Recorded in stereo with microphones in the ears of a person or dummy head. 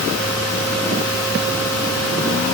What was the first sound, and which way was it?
Only background noise.